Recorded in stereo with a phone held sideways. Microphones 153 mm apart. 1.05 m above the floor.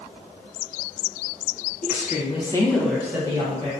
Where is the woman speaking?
65° left (ahead or behind), 0.7 m; by 3.7 s 30° right (ahead or behind), 1.1 m.